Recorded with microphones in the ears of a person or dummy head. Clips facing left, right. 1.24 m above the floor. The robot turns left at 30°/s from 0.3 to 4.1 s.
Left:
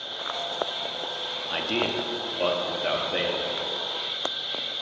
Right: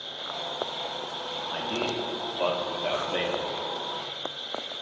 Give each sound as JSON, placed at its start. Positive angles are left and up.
{"t": 0.0, "sound": "an insect", "azimuth_deg": -175, "distance_m": 1.5}
{"t": 1.5, "sound": "a man speaking", "azimuth_deg": 50, "distance_m": 0.8}